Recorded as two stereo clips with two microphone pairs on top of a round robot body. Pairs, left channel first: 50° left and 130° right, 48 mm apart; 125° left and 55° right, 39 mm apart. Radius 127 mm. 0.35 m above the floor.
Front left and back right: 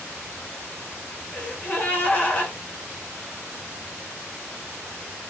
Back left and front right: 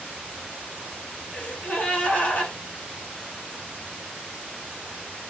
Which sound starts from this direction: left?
A gasp, at 1.3 s.